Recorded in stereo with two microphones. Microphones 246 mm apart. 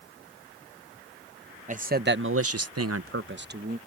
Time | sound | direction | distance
1.7 | a man speaking | 30° right (ahead or behind) | ?